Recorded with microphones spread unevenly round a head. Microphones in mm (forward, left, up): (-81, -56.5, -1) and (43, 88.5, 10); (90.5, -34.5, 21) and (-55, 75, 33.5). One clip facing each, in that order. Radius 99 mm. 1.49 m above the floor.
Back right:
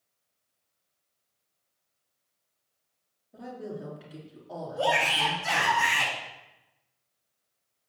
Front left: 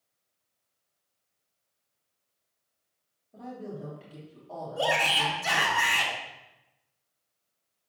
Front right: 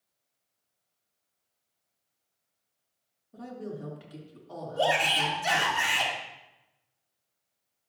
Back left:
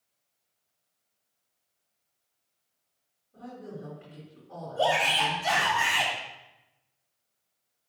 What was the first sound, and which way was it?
A woman speaking, 50° right.